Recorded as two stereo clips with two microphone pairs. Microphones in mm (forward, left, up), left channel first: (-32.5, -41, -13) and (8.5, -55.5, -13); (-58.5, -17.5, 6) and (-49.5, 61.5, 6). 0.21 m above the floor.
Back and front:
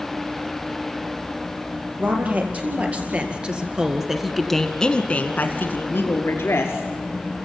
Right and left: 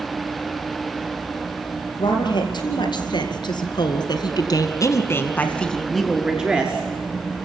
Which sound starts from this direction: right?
A woman speaking, at 2.0 s.